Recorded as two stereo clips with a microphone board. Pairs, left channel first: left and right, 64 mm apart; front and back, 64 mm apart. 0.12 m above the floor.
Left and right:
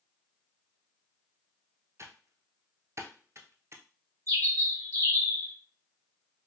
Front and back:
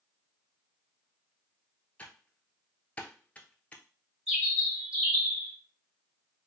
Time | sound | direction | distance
2.0 | typing on a keyboard | 65° right | 0.7 m
4.3 | a bird | 110° right | 1.7 m